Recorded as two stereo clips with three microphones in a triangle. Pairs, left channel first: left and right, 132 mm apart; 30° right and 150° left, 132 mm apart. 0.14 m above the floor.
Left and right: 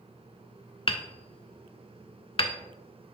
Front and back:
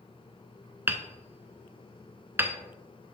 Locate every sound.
0.9 s hammering: 85° left, 0.5 m